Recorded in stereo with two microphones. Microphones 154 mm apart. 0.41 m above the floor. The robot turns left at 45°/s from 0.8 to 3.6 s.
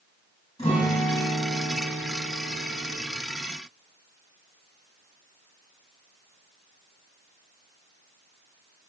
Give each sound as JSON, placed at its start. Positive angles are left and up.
{"t": 0.6, "sound": "a guitar", "azimuth_deg": 140, "distance_m": 1.8}